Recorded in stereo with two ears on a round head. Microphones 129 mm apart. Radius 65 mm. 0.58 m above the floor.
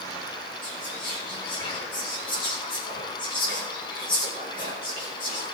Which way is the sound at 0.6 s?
35° left (ahead or behind).